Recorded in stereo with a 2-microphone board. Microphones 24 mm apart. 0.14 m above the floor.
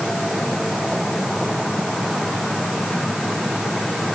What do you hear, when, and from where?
Only background noise.